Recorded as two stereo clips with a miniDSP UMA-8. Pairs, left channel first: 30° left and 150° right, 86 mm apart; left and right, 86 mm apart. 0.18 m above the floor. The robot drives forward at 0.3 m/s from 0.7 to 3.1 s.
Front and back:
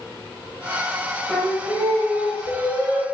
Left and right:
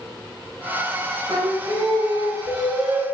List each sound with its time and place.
1.3 s singing: 65° right, 0.7 m; by 3.0 s 115° right, 0.7 m